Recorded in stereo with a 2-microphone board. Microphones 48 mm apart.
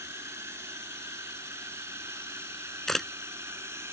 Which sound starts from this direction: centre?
A camera shutter, at 2.9 s.